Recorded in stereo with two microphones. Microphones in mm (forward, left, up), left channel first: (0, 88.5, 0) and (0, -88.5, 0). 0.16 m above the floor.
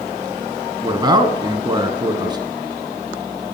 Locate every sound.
0.8 s a man speaking: 25° right (ahead or behind), 1.3 m